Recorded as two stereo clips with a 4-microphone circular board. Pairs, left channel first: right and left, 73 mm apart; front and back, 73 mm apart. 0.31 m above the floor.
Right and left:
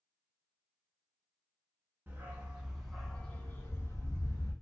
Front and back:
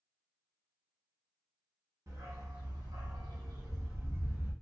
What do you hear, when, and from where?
2.1 s a dog barking: 150° left, 0.9 m; by 4.5 s 120° right, 1.1 m